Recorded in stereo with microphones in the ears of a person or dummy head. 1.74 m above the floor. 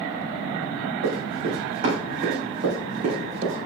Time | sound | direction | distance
1.0 | running footsteps | 60° right (ahead or behind) | 4 m